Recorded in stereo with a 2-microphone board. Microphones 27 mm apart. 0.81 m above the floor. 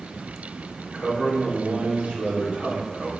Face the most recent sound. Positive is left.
turn(degrees=-60)  # may be behind; listen again after turning